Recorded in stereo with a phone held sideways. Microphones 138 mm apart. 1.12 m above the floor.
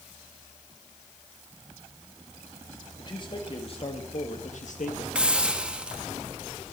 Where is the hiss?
10° right (ahead or behind), 1.3 m.